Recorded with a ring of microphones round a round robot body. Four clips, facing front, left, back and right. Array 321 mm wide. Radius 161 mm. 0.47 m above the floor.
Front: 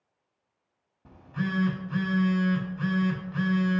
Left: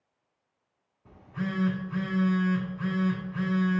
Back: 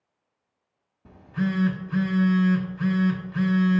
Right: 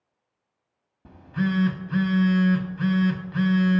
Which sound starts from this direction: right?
A phone buzzing, at 1.1 s.